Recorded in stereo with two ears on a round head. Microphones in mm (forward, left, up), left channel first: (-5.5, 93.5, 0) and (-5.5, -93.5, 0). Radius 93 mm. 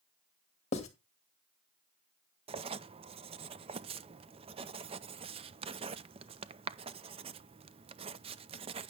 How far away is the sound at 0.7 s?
About 2.5 m.